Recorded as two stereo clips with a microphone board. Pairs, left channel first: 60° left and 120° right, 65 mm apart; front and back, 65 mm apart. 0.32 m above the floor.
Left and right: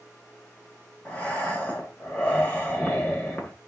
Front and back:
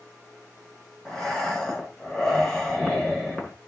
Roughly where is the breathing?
Left.